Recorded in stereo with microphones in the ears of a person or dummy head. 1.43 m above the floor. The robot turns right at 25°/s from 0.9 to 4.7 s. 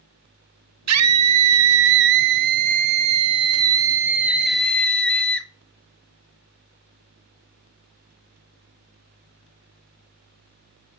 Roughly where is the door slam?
I don't hear a door slam.